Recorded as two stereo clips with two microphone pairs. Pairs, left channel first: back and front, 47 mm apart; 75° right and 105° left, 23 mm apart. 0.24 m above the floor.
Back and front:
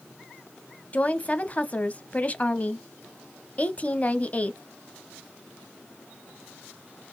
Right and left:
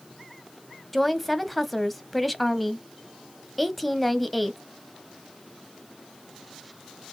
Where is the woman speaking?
165° right, 1.0 m.